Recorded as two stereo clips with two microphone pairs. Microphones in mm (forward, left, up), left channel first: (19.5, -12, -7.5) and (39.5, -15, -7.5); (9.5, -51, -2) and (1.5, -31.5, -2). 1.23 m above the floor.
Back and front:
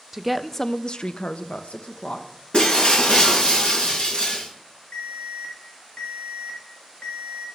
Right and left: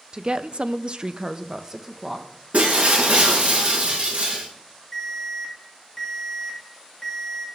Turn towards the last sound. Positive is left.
turn(degrees=-160)